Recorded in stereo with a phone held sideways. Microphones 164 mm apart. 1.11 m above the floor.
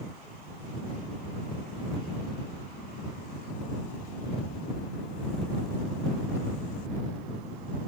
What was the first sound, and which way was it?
Only background noise.